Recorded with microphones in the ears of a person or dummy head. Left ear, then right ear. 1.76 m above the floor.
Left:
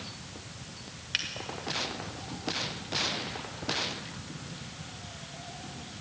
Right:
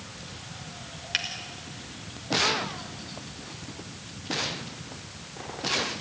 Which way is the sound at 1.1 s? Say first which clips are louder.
Right 3 dB; centre (ahead or behind).